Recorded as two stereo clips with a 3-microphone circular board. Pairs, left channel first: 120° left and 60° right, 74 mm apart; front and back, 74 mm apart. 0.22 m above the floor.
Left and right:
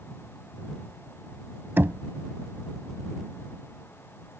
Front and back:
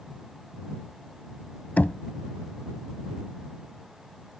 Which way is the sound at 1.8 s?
45° right.